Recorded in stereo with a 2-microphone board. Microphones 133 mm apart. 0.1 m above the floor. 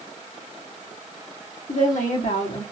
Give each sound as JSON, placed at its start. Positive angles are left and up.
{"t": 1.7, "sound": "a woman speaking", "side_deg": 70, "distance_m": 3.5}